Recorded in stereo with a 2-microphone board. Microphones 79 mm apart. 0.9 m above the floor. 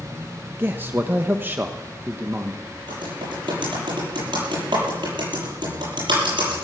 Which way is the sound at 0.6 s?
25° right (ahead or behind).